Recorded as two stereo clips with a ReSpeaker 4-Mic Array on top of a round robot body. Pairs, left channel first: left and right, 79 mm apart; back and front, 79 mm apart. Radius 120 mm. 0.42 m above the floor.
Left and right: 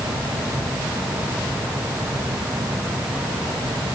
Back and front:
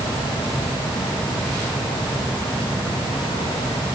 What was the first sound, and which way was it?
Only background noise.